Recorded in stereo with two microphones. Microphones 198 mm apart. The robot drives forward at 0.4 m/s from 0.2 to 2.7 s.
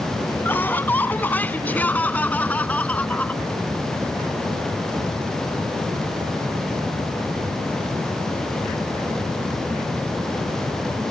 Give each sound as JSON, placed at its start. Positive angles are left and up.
{"t": 0.5, "sound": "laughter", "side_deg": 10}